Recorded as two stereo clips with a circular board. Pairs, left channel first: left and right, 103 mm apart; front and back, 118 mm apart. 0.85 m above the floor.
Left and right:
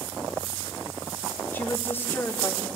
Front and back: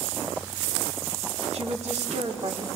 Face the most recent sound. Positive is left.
turn(degrees=160)